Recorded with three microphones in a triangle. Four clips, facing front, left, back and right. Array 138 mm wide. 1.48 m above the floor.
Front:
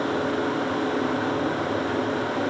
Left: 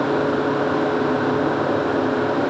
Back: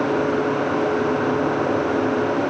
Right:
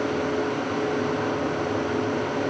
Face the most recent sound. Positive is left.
No sound to turn to.